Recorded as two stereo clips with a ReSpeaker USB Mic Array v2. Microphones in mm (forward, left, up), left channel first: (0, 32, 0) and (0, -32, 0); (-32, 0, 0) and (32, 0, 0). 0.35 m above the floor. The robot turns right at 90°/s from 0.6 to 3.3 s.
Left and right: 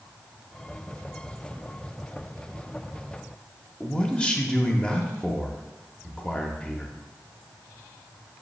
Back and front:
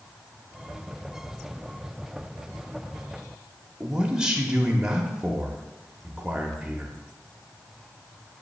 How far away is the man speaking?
About 0.8 m.